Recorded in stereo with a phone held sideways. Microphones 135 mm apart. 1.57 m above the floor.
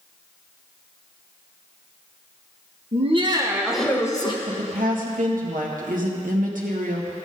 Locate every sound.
2.9 s laughter: 50° right (ahead or behind), 1.5 m; by 4.4 s 35° left (ahead or behind), 1.3 m
4.5 s a woman speaking: 85° right, 1.6 m